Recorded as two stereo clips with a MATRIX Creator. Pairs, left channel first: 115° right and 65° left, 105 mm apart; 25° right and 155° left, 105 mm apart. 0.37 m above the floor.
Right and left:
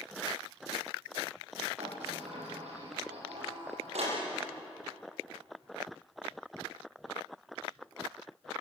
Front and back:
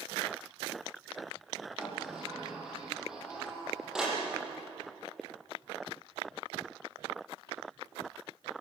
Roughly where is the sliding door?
Left.